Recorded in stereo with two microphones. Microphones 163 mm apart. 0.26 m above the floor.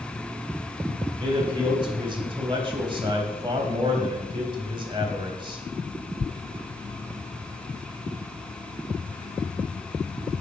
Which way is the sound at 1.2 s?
30° right (ahead or behind).